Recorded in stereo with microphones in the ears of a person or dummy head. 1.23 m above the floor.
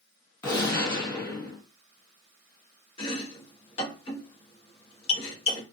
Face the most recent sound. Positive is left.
turn(degrees=30)  # may be behind; listen again after turning